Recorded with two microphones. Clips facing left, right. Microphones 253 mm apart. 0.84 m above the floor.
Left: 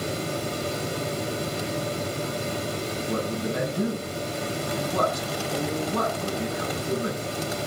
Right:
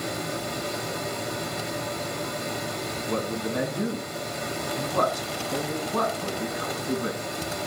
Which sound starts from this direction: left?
A man speaking, at 3.1 s.